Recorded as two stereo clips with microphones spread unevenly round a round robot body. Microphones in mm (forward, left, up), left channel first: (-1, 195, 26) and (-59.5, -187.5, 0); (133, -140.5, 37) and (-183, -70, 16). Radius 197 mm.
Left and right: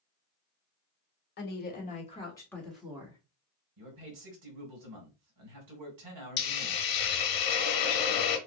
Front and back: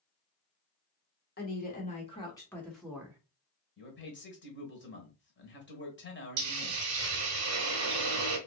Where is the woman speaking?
30° left, 1.5 m; by 3.2 s 145° right, 1.3 m.